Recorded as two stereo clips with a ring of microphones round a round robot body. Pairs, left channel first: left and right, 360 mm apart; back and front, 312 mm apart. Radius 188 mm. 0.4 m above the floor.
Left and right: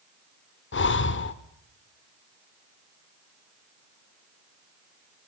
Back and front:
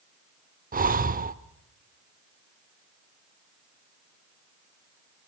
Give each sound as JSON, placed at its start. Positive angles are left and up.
{"t": 0.7, "sound": "breathing", "azimuth_deg": 50, "distance_m": 0.9}